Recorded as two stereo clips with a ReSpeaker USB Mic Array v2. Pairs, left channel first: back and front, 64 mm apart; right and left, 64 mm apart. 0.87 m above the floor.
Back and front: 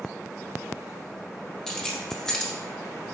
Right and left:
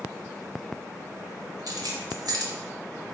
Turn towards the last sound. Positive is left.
turn(degrees=95)